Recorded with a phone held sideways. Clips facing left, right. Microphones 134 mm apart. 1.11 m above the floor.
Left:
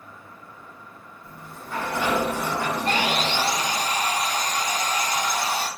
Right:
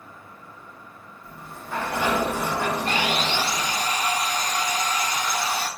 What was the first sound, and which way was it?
A sliding door, 25° right (ahead or behind).